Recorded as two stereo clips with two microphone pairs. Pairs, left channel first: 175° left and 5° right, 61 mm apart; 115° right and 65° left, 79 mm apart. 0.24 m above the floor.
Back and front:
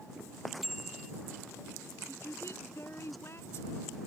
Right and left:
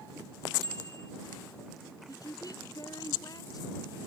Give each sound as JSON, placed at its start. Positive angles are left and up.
{"t": 0.6, "sound": "a bicycle bell", "azimuth_deg": 85}
{"t": 2.1, "sound": "a woman speaking", "azimuth_deg": -145}